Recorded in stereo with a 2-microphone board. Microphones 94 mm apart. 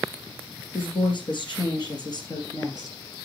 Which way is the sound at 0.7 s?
65° left (ahead or behind).